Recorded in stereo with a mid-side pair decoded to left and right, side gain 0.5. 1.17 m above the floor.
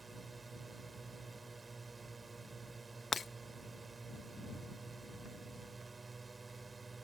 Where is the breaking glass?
30° left.